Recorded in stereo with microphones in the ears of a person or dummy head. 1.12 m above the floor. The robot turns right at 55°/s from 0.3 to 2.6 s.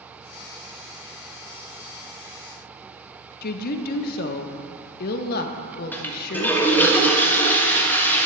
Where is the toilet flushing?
5° left (ahead or behind), 1.4 m.